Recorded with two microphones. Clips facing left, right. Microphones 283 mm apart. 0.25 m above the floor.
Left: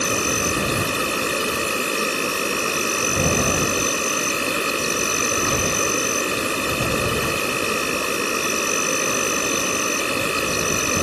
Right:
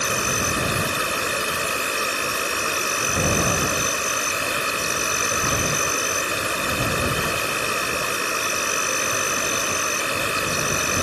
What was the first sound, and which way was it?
An insect, 35° left (ahead or behind).